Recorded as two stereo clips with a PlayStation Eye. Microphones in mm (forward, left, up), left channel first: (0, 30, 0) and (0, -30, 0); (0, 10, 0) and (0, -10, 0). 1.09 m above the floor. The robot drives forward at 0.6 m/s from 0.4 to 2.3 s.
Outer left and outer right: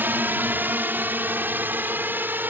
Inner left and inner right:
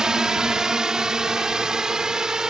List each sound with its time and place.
0.0 s a drone: 35° right (ahead or behind)